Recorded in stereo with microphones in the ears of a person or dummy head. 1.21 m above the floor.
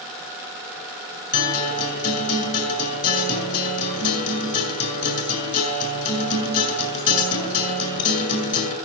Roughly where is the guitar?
Left.